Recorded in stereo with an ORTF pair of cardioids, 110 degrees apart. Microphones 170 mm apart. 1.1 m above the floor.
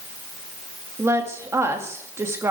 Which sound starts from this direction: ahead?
A woman speaking, at 1.0 s.